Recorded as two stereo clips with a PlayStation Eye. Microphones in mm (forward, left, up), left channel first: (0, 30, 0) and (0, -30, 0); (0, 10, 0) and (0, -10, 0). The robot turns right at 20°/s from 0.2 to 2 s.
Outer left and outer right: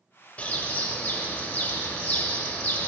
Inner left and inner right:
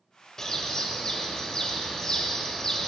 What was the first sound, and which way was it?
A bird, 25° left (ahead or behind).